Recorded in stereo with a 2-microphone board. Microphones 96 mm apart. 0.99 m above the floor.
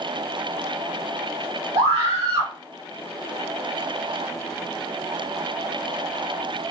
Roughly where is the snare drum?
I don't hear a snare drum.